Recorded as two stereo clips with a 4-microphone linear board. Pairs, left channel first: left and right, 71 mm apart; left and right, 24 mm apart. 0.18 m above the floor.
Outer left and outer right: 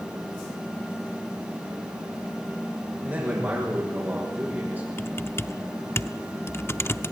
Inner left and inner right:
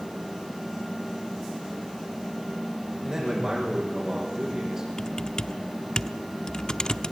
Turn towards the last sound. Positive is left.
turn(degrees=35)  # may be behind; listen again after turning